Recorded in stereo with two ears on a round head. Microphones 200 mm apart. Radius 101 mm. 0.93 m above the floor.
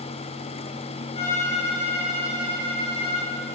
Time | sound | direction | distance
1.1 | a violin | 25° left (ahead or behind) | 6.5 m